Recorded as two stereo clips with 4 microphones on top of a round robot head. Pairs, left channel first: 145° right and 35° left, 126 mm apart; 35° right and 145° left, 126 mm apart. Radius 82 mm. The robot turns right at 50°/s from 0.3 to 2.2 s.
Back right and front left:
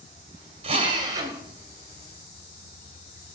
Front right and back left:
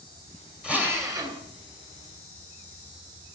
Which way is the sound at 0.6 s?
65° left.